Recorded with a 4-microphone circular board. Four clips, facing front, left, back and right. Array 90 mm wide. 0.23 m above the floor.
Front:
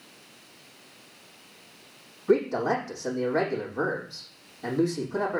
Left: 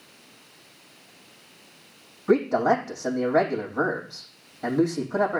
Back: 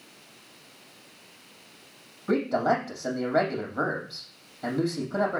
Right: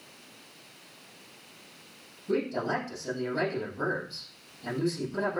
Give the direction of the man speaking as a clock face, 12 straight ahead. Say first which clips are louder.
Left 9 dB, front 1 dB; 8 o'clock.